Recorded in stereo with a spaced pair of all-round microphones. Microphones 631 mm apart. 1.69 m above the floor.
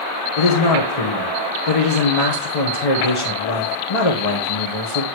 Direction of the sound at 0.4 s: 65° left (ahead or behind).